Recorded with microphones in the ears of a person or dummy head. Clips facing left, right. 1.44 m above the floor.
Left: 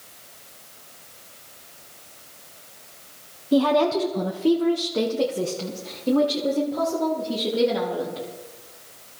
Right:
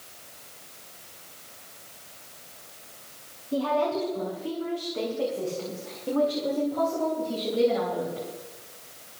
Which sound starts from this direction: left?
A woman speaking, at 3.5 s.